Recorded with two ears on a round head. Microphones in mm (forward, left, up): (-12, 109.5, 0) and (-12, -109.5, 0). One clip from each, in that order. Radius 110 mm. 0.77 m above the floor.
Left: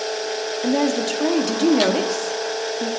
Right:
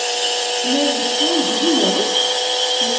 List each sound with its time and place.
0.6 s a woman speaking: 55° left (ahead or behind), 1.5 m